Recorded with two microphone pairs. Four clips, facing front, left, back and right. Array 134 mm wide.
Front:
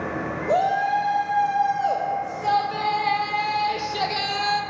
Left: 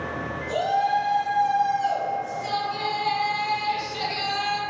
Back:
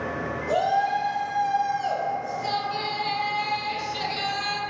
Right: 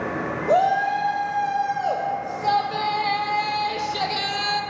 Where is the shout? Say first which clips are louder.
Right 4 dB, front 2 dB; 70° right, 3.5 m; by 4.6 s 30° right, 1.8 m.